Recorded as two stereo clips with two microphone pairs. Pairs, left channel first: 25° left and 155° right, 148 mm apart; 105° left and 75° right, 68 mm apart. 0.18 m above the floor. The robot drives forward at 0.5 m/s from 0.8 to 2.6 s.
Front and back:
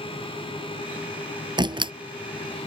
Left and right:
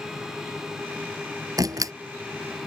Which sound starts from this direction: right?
A door slam, at 1.6 s.